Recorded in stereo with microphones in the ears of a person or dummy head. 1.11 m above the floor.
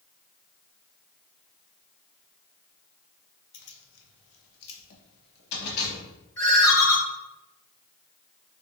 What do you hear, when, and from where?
3.5 s keys jangling: 55° left (ahead or behind), 0.6 m
6.4 s a ringtone: 15° left (ahead or behind), 0.9 m